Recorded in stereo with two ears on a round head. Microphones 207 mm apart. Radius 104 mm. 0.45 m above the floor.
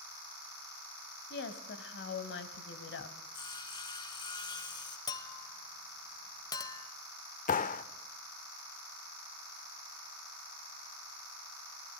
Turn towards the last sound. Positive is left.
turn(degrees=35)  # may be behind; listen again after turning